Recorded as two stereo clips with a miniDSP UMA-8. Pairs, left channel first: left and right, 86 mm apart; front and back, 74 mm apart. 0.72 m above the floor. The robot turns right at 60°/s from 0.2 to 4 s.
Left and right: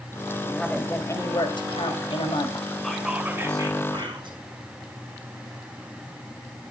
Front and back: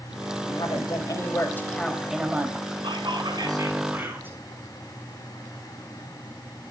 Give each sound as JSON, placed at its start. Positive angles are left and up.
{"t": 0.5, "sound": "a woman speaking", "azimuth_deg": -5, "distance_m": 3.5}
{"t": 2.8, "sound": "whispering", "azimuth_deg": 175, "distance_m": 5.0}